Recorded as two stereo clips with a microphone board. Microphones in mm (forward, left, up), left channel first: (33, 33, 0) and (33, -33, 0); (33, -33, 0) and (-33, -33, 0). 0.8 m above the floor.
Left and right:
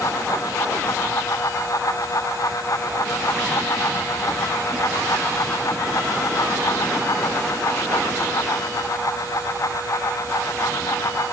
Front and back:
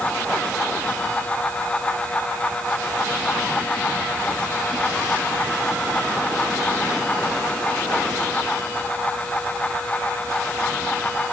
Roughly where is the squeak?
I don't hear a squeak.